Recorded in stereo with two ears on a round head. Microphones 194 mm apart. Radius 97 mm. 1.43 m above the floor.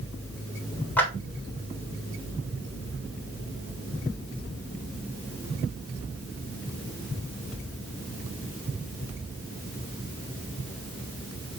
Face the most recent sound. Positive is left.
turn(degrees=10)  # may be behind; listen again after turning